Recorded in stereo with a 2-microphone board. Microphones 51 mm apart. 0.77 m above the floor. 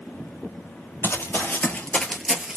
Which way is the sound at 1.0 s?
50° left (ahead or behind).